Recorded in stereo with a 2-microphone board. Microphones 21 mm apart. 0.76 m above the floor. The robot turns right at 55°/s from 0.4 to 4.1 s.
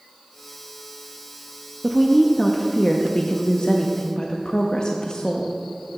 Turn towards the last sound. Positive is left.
turn(degrees=120)